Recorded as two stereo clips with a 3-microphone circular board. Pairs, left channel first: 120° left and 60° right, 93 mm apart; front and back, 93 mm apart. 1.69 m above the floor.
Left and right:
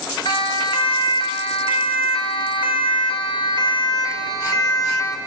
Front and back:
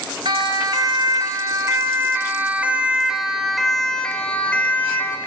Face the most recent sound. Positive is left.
turn(degrees=70)